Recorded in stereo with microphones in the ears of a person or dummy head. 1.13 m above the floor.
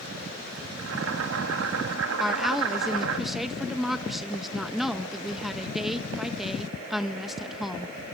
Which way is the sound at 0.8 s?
75° right (ahead or behind).